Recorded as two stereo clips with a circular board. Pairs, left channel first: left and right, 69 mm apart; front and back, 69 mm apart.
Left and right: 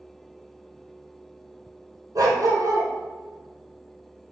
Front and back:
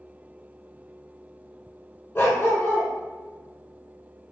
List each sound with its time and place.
2.1 s a dog barking: 60° right, 1.2 m